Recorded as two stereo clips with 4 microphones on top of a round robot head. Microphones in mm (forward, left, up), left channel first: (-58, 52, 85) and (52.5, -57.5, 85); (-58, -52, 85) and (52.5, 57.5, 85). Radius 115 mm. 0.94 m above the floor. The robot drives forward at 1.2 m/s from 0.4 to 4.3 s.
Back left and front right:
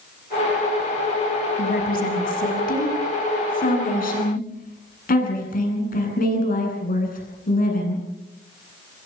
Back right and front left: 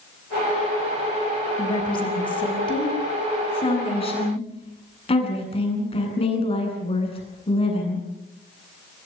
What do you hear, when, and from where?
1.6 s a woman speaking: 165° left, 7 m; by 8.0 s 170° left, 10 m